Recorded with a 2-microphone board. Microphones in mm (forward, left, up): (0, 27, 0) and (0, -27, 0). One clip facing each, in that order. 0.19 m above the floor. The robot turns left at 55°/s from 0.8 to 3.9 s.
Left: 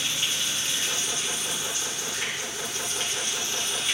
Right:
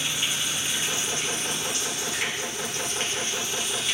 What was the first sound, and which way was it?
Running water, 15° right.